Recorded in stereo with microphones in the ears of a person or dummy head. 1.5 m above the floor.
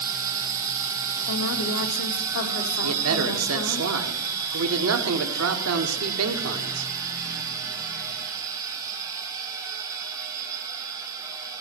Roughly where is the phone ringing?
I don't hear a phone ringing.